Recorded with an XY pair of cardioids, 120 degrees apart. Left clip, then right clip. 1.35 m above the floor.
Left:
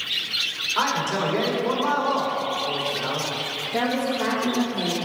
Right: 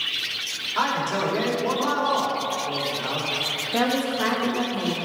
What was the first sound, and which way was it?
A man speaking, 10° right.